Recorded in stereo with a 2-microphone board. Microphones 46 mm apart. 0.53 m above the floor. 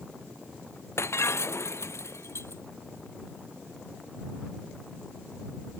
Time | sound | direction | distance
1.0 | breaking glass | 70° left (ahead or behind) | ?